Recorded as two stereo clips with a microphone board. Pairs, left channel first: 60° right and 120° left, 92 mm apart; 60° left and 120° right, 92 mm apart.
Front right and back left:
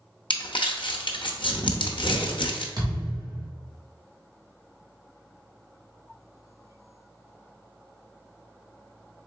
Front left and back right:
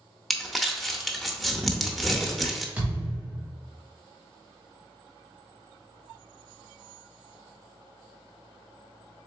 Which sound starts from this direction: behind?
A thud, at 2.8 s.